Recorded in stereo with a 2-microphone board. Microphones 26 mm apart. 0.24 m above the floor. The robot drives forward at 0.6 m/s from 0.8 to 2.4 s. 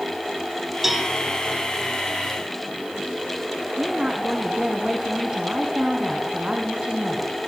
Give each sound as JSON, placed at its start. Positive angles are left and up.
{"t": 0.8, "sound": "a cowbell", "side_deg": -10, "distance_m": 1.3}
{"t": 3.8, "sound": "a woman speaking", "side_deg": -40, "distance_m": 2.5}